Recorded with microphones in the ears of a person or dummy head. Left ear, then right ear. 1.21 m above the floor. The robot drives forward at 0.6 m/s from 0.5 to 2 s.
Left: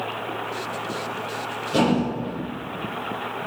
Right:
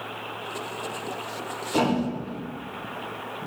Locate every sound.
1.7 s a thud: 20° right (ahead or behind), 1.7 m